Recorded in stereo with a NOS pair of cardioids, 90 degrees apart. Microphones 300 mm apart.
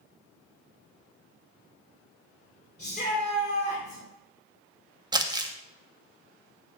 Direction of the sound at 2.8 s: 35° left.